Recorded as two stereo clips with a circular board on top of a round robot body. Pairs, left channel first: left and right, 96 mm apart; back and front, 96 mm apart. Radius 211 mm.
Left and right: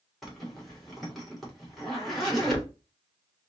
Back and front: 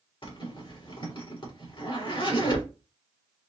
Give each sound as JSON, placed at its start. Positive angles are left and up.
{"t": 0.2, "sound": "a zipper", "azimuth_deg": 180, "distance_m": 2.5}